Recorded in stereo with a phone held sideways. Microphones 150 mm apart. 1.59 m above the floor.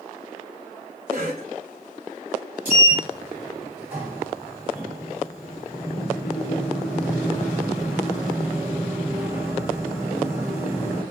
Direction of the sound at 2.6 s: 15° right (ahead or behind).